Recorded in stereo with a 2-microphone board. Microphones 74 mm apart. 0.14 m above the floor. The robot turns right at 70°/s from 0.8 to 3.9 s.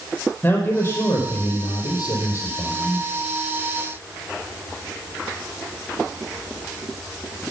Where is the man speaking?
35° left, 5.5 m; by 3.1 s 165° right, 5.5 m.